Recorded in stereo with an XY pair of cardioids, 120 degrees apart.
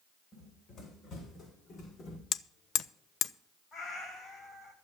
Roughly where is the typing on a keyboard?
I don't hear typing on a keyboard.